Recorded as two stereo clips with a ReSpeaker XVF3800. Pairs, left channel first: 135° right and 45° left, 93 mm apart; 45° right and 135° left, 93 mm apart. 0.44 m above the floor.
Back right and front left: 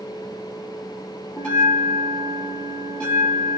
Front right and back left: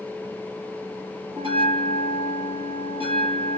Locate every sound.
1.4 s a bell: 155° left, 3.5 m